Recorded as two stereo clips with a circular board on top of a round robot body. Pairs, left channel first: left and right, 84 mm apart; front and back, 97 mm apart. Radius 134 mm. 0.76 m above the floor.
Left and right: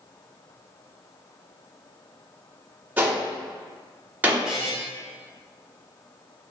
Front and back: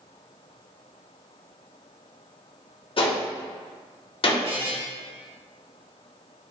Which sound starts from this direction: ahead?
A gunshot, at 3.0 s.